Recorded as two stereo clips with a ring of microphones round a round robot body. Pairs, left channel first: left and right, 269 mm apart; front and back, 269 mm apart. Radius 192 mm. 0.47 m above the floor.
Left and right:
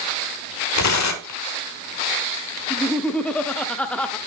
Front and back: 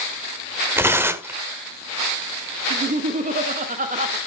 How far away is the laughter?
About 0.8 m.